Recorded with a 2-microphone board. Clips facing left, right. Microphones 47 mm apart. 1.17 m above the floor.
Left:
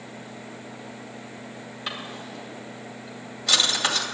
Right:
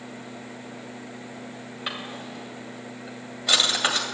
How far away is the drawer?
About 2 m.